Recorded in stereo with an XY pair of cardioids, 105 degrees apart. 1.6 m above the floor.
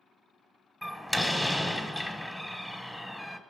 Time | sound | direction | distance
0.8 | a door slam | 5° left | 1.1 m